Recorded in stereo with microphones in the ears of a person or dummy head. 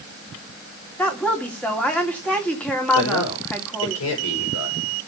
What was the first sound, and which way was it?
A woman speaking, 10° left (ahead or behind).